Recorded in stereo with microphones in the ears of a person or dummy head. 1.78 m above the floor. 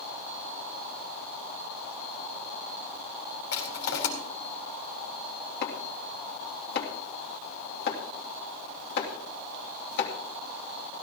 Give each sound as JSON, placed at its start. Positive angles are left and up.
{"t": 3.5, "sound": "crushing", "side_deg": 65, "distance_m": 3.5}
{"t": 5.6, "sound": "chopping", "side_deg": 65, "distance_m": 2.5}